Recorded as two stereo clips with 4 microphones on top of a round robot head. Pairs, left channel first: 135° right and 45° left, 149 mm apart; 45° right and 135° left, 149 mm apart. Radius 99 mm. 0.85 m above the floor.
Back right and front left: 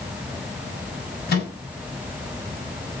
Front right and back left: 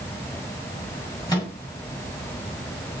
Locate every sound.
1.3 s a microwave: 115° right, 7 m